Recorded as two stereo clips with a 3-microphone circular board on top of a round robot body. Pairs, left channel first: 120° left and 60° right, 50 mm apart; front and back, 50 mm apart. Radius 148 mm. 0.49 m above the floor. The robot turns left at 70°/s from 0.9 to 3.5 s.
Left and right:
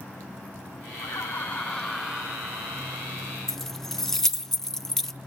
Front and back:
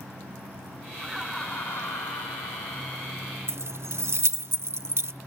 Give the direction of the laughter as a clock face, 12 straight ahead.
9 o'clock.